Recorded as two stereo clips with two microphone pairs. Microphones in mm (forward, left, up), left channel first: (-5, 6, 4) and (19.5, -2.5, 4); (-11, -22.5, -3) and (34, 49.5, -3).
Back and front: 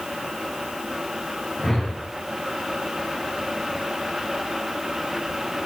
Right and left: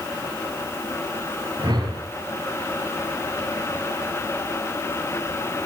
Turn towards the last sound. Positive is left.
turn(degrees=90)